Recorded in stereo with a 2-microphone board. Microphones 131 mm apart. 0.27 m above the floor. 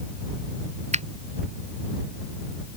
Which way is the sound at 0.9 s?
60° right (ahead or behind).